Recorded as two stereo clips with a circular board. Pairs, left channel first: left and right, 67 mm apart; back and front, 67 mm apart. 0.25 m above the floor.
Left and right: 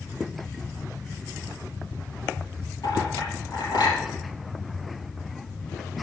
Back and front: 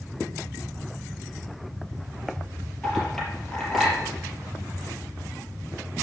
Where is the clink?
100° left, 4 m.